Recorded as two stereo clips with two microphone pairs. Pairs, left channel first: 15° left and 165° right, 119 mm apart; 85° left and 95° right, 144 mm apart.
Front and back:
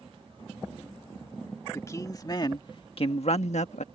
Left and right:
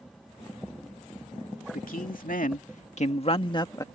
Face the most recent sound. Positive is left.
turn(degrees=15)